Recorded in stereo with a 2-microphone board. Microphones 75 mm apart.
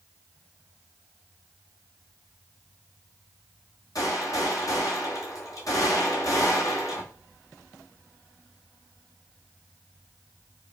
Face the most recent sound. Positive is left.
turn(degrees=50)  # may be behind; listen again after turning